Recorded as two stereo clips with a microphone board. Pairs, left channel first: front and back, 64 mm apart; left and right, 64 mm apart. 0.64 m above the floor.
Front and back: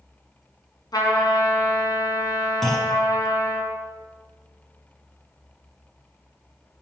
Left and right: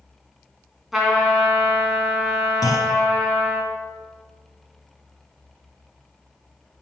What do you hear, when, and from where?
0.9 s a trumpet: 5° right, 2.5 m
2.6 s a clunk: 85° left, 1.5 m